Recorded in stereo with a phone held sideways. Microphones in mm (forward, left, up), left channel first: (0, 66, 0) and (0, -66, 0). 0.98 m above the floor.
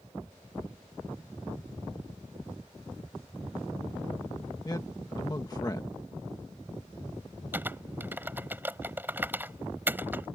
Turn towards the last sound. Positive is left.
turn(degrees=-15)  # may be behind; listen again after turning